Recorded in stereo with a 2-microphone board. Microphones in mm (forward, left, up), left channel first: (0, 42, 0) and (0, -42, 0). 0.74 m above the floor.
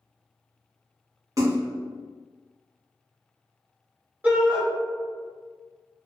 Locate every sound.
1.4 s a splash: 40° right (ahead or behind), 0.8 m
4.2 s a shout: 20° right (ahead or behind), 1.4 m